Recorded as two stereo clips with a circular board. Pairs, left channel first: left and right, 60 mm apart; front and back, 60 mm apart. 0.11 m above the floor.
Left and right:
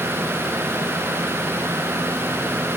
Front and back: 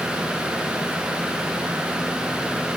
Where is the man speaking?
No man speaking in this recording.